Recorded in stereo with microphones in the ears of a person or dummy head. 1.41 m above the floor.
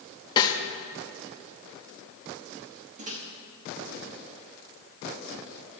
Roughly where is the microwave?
Right.